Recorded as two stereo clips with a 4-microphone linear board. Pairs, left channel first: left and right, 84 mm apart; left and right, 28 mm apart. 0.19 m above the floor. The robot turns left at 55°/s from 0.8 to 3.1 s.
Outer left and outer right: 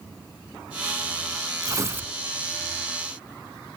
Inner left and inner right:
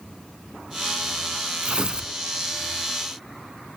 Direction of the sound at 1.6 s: 45° right (ahead or behind).